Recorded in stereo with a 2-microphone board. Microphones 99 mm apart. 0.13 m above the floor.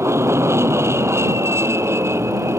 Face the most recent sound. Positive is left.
turn(degrees=-25)  # may be behind; listen again after turning